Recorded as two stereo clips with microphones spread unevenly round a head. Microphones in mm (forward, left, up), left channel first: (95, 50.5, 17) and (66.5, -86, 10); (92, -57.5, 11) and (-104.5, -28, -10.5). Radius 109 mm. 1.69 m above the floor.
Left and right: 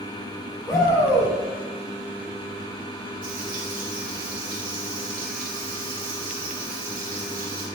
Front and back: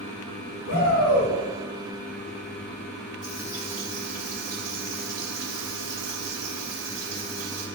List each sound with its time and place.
0.7 s a shout: 15° left, 2.5 m
3.2 s frying: 110° right, 2 m